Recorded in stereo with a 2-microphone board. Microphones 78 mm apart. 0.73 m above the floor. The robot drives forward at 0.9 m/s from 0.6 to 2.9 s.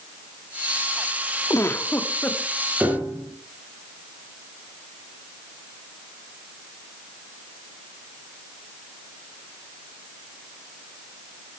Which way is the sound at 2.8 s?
15° right (ahead or behind).